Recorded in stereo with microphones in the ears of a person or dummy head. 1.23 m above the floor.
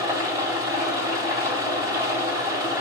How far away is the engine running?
About 1.7 m.